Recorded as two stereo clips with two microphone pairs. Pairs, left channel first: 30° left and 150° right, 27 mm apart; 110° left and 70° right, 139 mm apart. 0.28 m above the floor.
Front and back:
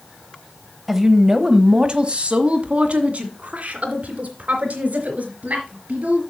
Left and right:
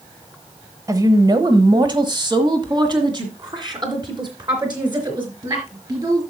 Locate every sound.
0.9 s a woman speaking: 80° right, 0.9 m; by 6.2 s 125° right, 4 m